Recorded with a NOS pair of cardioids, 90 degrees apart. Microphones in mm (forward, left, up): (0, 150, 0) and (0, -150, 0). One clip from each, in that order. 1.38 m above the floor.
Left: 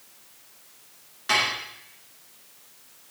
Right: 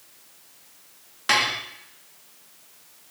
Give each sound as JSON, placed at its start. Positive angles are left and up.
{"t": 1.3, "sound": "dishes clattering", "azimuth_deg": -40, "distance_m": 1.6}